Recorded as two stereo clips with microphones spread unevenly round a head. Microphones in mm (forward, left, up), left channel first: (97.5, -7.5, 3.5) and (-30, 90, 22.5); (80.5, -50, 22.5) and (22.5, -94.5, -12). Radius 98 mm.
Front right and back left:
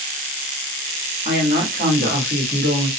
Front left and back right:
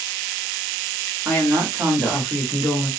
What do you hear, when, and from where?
1.2 s a woman speaking: 170° right, 1.4 m; by 2.9 s 130° left, 1.6 m